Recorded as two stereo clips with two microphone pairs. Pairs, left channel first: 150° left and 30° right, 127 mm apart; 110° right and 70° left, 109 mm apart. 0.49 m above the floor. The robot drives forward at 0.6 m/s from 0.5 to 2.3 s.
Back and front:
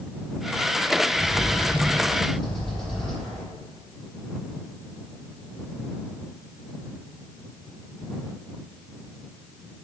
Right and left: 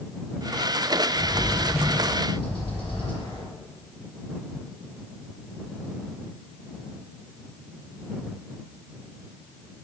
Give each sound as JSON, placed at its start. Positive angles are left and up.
{"t": 1.1, "sound": "a bird", "azimuth_deg": -115, "distance_m": 3.0}